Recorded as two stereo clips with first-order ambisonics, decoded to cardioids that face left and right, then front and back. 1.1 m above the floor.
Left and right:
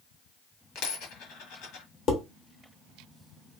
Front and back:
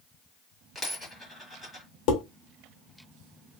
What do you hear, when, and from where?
0.8 s a dropped coin: 85° left, 1.5 m
2.1 s dishes clattering: 35° left, 1.2 m